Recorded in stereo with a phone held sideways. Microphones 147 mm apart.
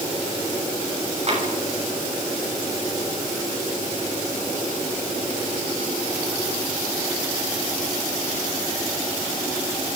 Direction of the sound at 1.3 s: 45° right (ahead or behind).